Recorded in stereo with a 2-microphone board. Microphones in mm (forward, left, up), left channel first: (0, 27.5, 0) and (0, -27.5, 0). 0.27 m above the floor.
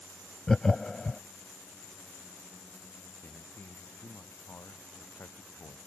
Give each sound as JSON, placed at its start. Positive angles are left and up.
{"t": 0.5, "sound": "laughter", "side_deg": 10}
{"t": 3.2, "sound": "a man speaking", "side_deg": 40}